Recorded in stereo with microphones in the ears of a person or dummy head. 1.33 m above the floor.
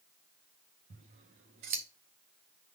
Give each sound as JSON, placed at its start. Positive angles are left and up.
{"t": 0.9, "sound": "scissors", "side_deg": -35, "distance_m": 0.8}